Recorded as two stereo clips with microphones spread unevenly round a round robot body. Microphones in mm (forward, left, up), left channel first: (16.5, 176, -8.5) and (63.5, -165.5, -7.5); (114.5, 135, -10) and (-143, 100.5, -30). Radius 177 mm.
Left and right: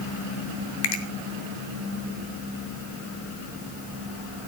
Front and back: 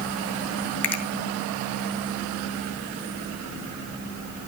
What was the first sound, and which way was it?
A finger snap, 95° left.